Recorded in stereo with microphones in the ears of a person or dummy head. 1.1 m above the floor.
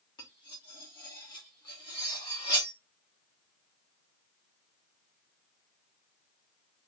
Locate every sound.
0.2 s cutlery clinking: 20° left (ahead or behind), 1.1 m